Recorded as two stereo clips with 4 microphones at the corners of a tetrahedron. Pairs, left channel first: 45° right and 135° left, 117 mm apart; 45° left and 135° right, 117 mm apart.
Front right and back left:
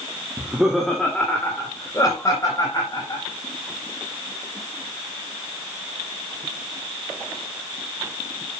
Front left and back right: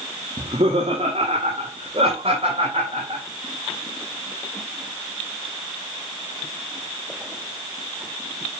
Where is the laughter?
155° right, 1.7 m; by 3.2 s 100° right, 5 m.